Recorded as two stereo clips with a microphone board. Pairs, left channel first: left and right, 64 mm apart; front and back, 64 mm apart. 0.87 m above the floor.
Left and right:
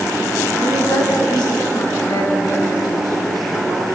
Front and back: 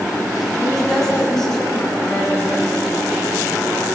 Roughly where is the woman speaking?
Left.